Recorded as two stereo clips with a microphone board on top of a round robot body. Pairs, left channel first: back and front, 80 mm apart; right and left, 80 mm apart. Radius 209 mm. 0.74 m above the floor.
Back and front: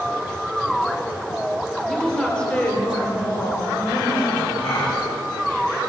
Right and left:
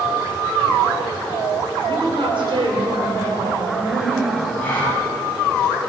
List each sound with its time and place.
1.9 s a woman speaking: 90° left, 4.5 m; by 4.5 s 135° left, 6 m
4.6 s a gasp: 160° right, 9 m